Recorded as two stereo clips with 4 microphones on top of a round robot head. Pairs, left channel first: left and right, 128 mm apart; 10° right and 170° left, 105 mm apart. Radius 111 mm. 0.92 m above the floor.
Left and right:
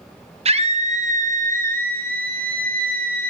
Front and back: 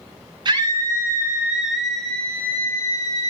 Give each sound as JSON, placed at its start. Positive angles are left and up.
{"t": 0.5, "sound": "a scream", "azimuth_deg": -130, "distance_m": 2.5}